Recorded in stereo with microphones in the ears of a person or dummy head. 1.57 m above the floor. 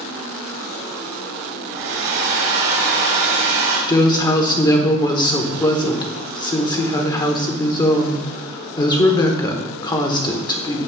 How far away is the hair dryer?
About 1.9 m.